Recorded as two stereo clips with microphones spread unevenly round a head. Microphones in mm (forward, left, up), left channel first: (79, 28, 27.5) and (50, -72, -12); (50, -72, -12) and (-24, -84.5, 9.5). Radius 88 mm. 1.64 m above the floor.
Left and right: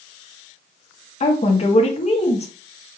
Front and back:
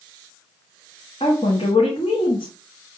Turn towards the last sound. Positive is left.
turn(degrees=65)